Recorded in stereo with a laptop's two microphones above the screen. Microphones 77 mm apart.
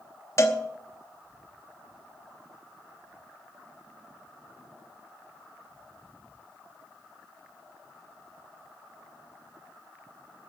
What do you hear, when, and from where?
0.4 s a cowbell: 40° left (ahead or behind), 0.9 m